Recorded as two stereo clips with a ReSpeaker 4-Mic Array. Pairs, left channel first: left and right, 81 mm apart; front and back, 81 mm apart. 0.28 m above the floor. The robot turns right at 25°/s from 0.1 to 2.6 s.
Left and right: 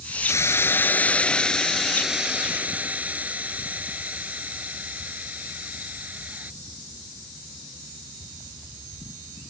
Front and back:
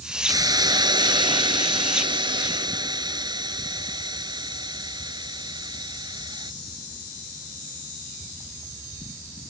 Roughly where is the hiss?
Behind left.